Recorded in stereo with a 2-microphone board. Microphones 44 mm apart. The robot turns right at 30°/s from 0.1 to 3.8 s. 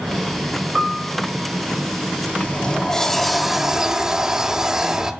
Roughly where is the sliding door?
Behind left.